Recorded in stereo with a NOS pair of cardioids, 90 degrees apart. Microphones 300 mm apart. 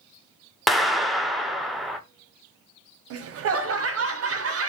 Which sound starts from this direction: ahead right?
Laughter, at 3.1 s.